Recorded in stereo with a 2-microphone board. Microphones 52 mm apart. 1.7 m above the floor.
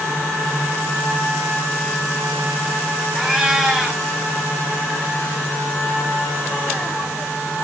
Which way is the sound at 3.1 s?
10° right (ahead or behind).